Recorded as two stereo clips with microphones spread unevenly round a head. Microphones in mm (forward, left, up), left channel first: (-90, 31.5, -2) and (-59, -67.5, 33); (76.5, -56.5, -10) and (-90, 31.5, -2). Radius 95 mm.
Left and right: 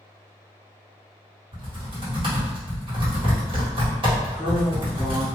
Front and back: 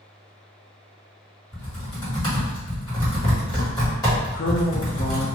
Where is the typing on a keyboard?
100° right, 1.7 m.